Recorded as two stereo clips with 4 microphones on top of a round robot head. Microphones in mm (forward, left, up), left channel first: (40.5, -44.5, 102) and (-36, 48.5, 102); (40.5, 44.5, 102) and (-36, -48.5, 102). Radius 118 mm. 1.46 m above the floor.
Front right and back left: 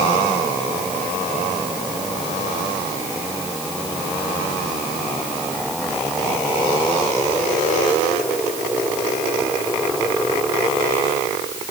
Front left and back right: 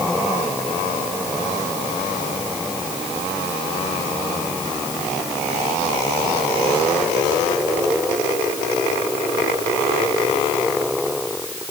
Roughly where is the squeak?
No squeak in this recording.